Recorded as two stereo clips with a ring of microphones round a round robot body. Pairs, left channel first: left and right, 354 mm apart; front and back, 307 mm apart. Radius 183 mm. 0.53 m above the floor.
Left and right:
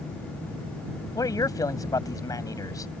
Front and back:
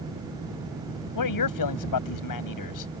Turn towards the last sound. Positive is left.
turn(degrees=10)